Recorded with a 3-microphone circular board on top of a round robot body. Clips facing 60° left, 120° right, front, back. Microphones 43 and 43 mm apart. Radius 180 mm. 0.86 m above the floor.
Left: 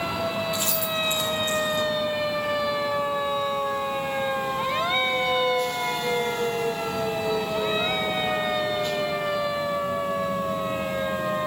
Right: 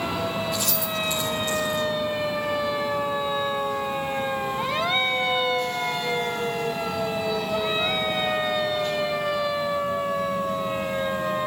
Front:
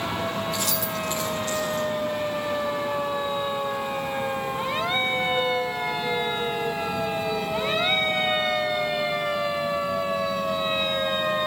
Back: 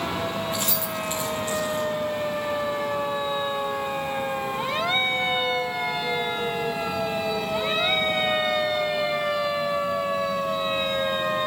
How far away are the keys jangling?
About 2.5 m.